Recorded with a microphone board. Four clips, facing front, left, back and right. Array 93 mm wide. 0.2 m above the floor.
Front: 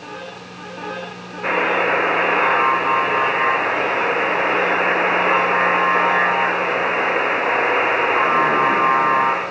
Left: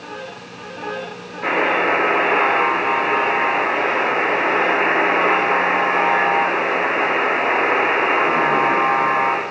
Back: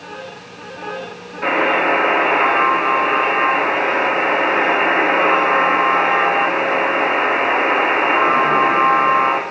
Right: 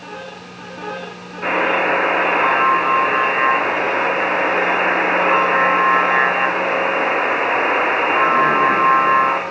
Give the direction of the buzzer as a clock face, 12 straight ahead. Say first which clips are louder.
Right 1 dB, back 2 dB; 5 o'clock.